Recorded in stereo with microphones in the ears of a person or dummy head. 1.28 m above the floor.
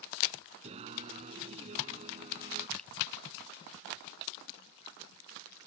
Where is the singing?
35° right (ahead or behind).